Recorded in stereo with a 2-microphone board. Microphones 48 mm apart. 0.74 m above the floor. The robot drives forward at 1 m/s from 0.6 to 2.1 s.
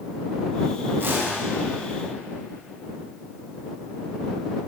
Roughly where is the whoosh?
Right.